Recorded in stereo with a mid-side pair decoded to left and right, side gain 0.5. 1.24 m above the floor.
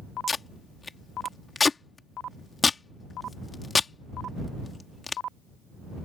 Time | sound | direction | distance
0.3 | tape being pulled | 25° left | ?